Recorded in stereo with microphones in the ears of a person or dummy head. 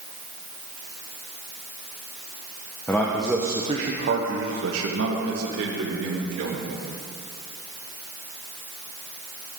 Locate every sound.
2.9 s a man speaking: 15° left (ahead or behind), 1.3 m; by 6.8 s 75° right (ahead or behind), 3 m